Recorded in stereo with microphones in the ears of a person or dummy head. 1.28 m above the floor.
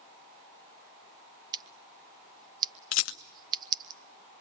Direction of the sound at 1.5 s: 20° right (ahead or behind).